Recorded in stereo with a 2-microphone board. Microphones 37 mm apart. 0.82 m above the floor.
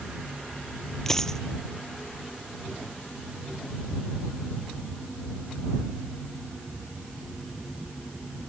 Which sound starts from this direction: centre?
A dropped coin, at 1.1 s.